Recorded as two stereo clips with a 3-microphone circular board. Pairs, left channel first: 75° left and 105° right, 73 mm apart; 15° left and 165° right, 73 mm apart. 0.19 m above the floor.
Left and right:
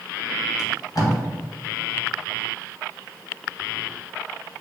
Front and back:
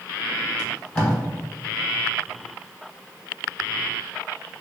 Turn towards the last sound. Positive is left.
turn(degrees=85)